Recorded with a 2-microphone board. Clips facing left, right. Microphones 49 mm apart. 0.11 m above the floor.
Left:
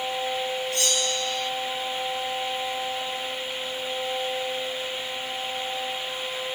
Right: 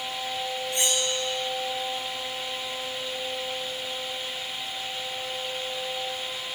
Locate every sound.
0.7 s a bell: 25° right (ahead or behind), 3 m